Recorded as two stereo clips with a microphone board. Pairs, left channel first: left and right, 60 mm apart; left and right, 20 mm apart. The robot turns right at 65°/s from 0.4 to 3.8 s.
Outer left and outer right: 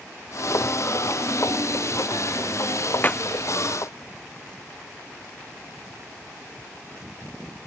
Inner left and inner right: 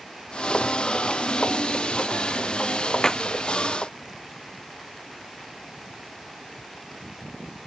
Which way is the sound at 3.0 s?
30° left (ahead or behind).